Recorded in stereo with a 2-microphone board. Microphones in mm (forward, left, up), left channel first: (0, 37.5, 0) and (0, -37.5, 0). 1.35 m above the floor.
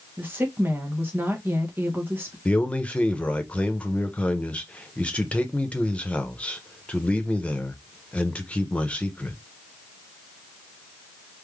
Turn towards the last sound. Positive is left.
turn(degrees=15)  # may be behind; listen again after turning